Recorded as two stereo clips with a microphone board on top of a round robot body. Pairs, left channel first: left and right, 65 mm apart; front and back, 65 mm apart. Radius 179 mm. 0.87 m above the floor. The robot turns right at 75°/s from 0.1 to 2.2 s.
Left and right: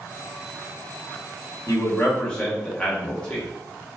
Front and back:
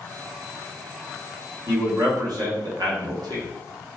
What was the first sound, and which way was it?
A man speaking, 130° left.